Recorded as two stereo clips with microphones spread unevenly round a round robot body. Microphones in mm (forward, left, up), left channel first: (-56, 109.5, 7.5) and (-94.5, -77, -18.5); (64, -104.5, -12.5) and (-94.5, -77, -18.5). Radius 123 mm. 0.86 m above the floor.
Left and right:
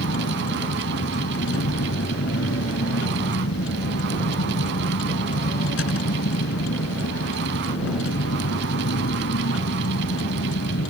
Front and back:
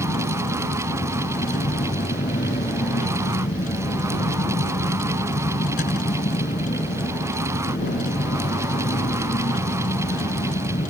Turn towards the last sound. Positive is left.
turn(degrees=40)